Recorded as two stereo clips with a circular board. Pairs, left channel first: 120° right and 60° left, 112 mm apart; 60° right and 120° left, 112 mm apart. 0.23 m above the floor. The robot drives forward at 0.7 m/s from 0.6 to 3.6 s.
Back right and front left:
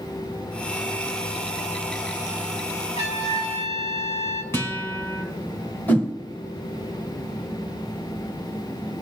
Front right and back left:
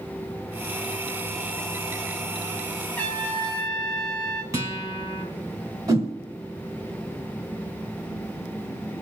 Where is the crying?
No crying in this recording.